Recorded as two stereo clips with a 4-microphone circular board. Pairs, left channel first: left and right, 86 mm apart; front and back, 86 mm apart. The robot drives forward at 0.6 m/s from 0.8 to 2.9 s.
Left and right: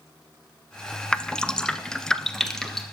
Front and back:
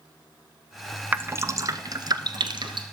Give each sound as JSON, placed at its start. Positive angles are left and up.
{"t": 1.1, "sound": "dripping", "azimuth_deg": 155, "distance_m": 0.6}